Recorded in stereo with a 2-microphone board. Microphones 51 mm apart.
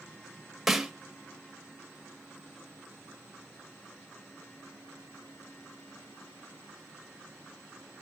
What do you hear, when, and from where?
0.7 s a snare drum: 5° right (ahead or behind), 0.9 m